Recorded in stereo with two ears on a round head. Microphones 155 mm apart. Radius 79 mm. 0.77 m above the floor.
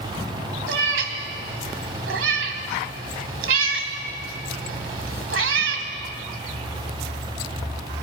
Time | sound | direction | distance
0.7 | a cat meowing | 85° right | 2 m